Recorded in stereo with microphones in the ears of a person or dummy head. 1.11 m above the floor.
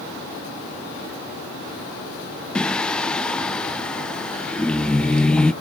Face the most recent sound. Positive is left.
turn(degrees=10)  # may be behind; listen again after turning